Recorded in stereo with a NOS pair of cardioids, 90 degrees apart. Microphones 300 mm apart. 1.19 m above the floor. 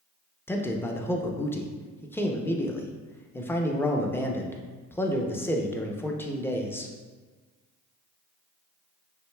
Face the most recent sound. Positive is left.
turn(degrees=5)